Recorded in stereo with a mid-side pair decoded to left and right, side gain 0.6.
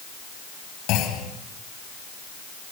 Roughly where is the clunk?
Left.